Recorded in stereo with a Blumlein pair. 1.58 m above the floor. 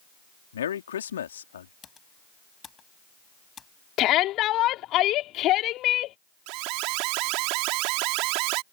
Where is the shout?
35° left.